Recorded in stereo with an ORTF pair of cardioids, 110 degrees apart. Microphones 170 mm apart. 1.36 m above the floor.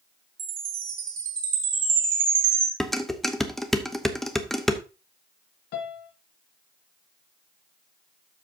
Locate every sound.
0.4 s a chime: 65° right, 3 m
2.8 s dishes clattering: straight ahead, 0.9 m
5.7 s a piano: 70° left, 1.8 m